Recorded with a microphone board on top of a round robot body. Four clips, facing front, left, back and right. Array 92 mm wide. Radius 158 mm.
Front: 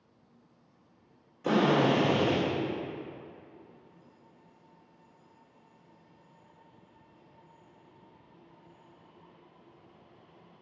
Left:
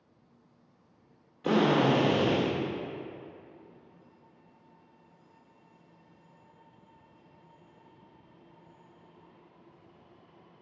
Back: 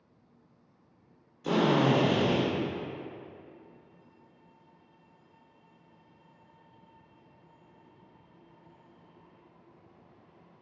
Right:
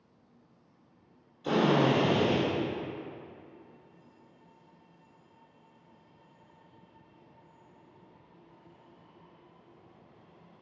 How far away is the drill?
About 2.5 m.